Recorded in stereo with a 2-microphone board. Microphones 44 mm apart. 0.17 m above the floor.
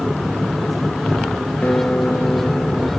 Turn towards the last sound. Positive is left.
turn(degrees=35)  # may be behind; listen again after turning